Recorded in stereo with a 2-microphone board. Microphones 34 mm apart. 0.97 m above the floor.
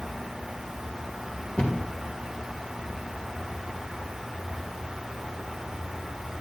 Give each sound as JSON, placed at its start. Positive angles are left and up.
{"t": 1.6, "sound": "a cupboard door", "side_deg": 40, "distance_m": 1.5}